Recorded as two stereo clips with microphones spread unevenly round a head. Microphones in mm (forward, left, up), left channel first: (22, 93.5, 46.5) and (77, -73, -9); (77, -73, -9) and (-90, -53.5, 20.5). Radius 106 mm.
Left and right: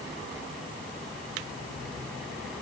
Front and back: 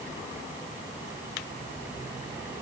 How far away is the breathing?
I don't hear breathing.